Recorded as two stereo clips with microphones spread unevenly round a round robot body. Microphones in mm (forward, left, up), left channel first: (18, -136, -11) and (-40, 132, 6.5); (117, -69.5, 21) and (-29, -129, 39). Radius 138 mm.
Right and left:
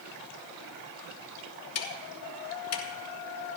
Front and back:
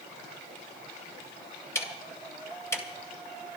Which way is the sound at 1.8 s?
50° right.